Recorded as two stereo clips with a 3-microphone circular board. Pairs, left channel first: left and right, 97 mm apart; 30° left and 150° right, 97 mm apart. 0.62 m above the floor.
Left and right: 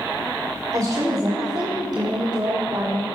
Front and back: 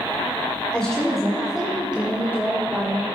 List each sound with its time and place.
0.7 s a woman speaking: 50° right, 2 m; by 3.0 s 100° right, 1.6 m